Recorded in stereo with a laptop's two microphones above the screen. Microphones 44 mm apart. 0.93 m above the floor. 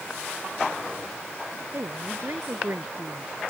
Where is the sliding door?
No sliding door in this recording.